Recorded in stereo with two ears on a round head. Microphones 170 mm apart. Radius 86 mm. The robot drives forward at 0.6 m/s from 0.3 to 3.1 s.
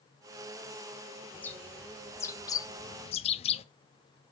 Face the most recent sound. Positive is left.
turn(degrees=30)  # may be behind; listen again after turning